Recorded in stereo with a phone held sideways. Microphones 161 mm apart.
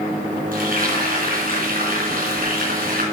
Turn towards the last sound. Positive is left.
turn(degrees=-65)  # may be behind; listen again after turning